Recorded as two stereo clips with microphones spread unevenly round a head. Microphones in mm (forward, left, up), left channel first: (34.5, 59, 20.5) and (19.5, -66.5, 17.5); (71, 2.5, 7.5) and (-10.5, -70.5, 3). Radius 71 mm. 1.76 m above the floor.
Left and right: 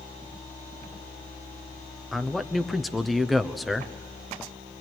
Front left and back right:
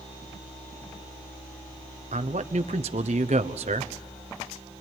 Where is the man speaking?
175° left, 1.0 m.